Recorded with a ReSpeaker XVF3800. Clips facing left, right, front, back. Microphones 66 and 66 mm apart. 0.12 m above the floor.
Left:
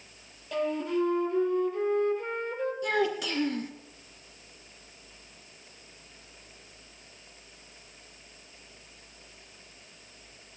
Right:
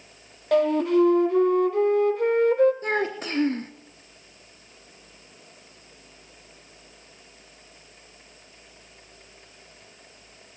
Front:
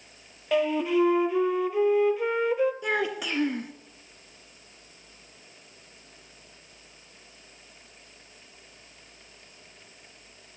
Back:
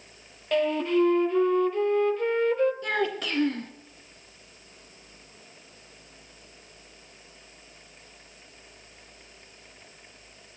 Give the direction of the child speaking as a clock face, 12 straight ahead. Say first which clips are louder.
Right 1 dB, even; 2 o'clock.